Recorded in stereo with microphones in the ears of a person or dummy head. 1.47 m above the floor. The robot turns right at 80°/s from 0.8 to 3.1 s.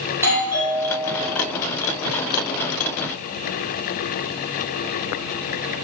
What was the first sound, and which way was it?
A doorbell, 15° right.